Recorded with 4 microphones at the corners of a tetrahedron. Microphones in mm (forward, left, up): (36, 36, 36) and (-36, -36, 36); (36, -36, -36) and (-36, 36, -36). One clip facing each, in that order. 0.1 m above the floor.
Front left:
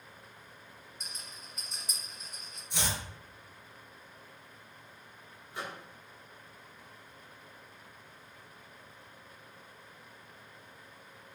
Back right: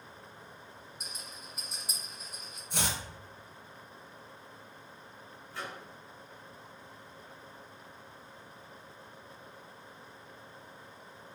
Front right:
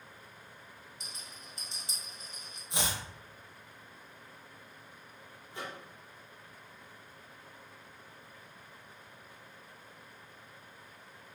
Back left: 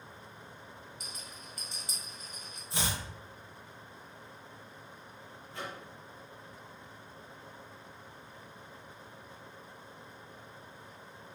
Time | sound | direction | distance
1.0 | a rattle | 60° right | 1.6 m
2.7 | chopping | 110° right | 0.9 m
5.5 | a microwave | straight ahead | 1.4 m